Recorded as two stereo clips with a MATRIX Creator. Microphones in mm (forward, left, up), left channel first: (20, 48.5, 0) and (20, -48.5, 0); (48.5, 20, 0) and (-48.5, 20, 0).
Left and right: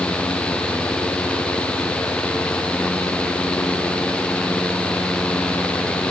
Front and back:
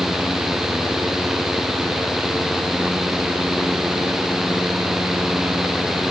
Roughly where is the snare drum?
No snare drum in this recording.